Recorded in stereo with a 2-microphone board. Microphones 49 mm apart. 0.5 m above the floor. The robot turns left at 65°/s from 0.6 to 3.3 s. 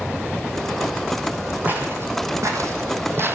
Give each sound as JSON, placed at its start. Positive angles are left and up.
{"t": 1.6, "sound": "footsteps", "side_deg": -35, "distance_m": 2.5}